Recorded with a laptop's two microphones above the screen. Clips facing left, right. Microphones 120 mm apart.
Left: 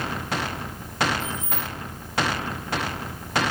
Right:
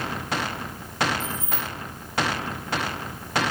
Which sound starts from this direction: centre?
Keys jangling, at 1.2 s.